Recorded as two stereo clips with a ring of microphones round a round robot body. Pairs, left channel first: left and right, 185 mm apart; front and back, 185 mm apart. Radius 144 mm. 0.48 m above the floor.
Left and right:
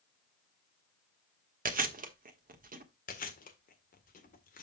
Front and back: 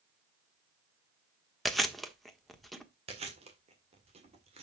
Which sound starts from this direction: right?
Chewing, at 1.6 s.